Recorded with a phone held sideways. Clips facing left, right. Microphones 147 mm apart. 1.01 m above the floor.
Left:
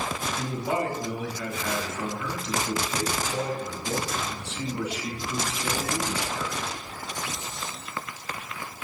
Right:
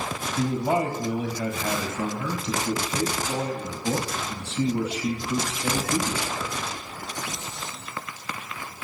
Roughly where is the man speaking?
Right.